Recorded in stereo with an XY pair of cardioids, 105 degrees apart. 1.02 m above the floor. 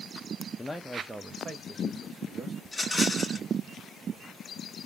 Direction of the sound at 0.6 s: 15° left.